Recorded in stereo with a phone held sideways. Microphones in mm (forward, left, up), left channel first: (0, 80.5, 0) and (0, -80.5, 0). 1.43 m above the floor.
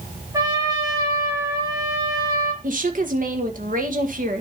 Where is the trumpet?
25° right (ahead or behind), 4.5 m.